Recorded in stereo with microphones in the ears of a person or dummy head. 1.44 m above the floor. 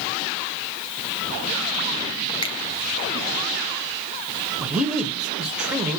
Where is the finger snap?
30° left (ahead or behind), 0.6 m.